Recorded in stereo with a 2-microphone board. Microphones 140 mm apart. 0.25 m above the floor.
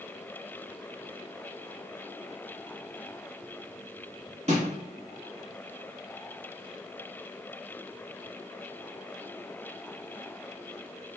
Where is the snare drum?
50° right (ahead or behind), 1.3 m.